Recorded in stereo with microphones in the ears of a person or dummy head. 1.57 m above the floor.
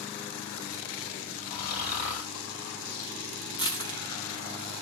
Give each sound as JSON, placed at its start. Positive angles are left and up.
{"t": 1.5, "sound": "snoring", "side_deg": 50, "distance_m": 2.5}
{"t": 3.6, "sound": "crushing", "side_deg": 25, "distance_m": 0.9}